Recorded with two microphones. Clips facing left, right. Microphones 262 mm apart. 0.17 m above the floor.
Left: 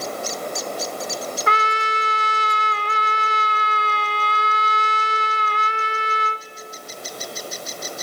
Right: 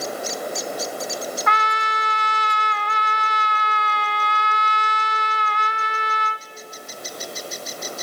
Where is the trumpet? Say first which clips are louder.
Left 2 dB; 35° left (ahead or behind), 0.8 m.